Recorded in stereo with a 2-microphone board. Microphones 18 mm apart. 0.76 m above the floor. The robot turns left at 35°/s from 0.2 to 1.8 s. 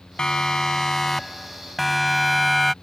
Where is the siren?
55° left (ahead or behind); by 2.8 s 5° left (ahead or behind).